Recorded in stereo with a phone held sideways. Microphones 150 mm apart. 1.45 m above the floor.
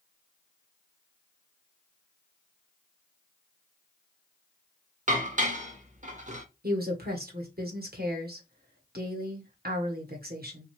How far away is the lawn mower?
No lawn mower in this recording.